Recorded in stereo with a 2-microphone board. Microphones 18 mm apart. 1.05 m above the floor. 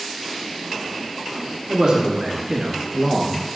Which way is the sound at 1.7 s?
40° right (ahead or behind).